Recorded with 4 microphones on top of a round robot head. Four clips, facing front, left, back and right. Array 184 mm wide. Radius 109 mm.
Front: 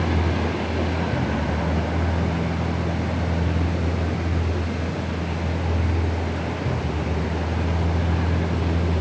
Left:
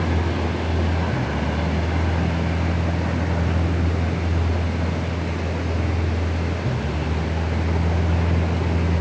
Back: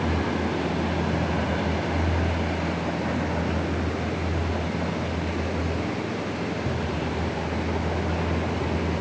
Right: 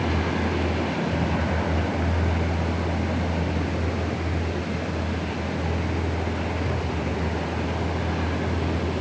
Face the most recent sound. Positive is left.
No sound to turn to.